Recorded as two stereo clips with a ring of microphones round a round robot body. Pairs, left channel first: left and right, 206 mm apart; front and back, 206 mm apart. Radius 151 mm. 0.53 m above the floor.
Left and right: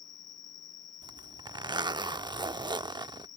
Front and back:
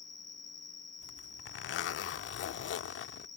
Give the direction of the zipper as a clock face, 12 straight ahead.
1 o'clock.